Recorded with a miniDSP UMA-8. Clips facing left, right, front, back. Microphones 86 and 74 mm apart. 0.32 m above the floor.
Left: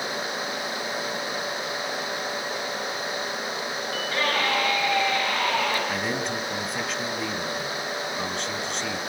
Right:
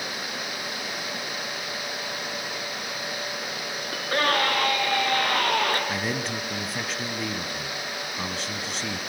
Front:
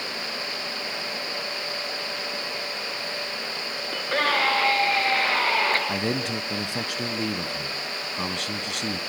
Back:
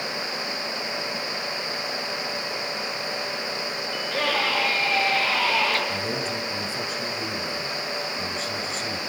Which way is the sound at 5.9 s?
Straight ahead.